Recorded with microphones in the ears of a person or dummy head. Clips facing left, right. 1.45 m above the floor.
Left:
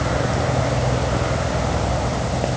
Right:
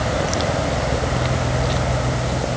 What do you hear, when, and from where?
Only background noise.